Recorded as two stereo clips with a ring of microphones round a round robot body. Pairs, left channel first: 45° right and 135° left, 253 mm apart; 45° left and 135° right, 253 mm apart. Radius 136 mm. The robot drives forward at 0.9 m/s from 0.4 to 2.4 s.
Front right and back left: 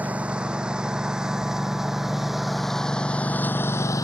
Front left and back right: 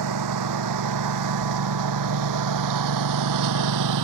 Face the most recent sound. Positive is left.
turn(degrees=-125)